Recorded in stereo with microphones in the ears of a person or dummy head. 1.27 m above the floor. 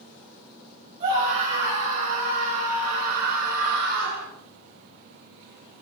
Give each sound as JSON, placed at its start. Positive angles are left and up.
{"t": 1.0, "sound": "a scream", "side_deg": -30, "distance_m": 5.5}